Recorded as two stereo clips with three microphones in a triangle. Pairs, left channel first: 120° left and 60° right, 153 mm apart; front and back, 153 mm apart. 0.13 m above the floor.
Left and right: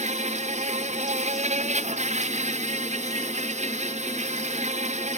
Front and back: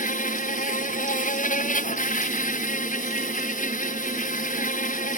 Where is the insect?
25° right.